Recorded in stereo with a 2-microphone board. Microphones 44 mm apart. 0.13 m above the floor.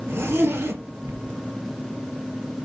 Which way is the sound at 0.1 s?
60° right (ahead or behind).